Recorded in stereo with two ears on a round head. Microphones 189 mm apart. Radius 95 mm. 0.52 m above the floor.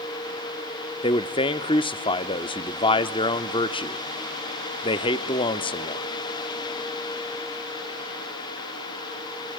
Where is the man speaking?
25° left (ahead or behind), 0.8 m.